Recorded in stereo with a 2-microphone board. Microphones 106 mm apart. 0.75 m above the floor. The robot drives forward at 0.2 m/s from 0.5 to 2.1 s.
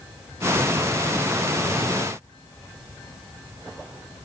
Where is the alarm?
I don't hear an alarm.